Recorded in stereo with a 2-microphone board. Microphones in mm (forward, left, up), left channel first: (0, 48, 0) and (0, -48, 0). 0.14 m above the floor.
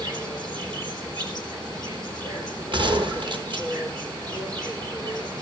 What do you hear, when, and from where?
0.0 s an insect: 40° right (ahead or behind), 3 m
2.7 s a gunshot: 55° right (ahead or behind), 1.5 m